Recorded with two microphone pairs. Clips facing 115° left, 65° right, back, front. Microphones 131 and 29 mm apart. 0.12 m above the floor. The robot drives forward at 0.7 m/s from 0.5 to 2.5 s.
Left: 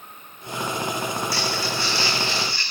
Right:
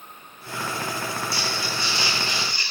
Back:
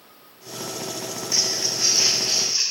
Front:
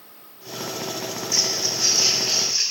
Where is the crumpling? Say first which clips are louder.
Left 3 dB, even; 130° right, 6 m; by 2.6 s 135° right, 6.5 m.